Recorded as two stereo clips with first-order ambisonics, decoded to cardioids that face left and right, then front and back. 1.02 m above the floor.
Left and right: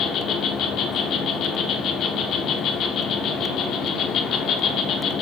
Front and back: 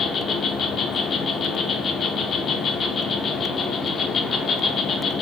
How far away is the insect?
About 0.7 m.